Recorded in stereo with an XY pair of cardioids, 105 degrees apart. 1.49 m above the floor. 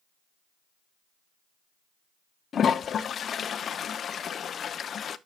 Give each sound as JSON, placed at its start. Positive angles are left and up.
{"t": 2.5, "sound": "a toilet flushing", "azimuth_deg": 50, "distance_m": 0.6}